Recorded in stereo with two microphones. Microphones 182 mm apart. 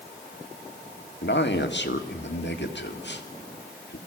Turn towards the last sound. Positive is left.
turn(degrees=75)  # may be behind; listen again after turning